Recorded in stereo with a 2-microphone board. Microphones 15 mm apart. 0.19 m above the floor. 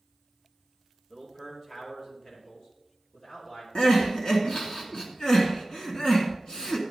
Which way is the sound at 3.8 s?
50° left (ahead or behind).